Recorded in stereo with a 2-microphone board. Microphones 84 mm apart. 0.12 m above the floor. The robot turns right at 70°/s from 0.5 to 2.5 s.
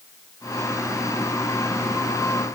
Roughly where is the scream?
No scream in this recording.